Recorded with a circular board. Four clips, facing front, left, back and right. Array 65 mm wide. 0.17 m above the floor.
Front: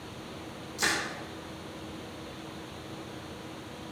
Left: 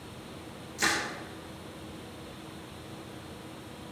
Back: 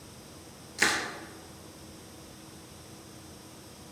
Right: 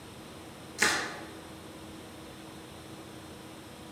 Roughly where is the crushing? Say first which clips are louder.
Right 1 dB, back 2 dB; behind right.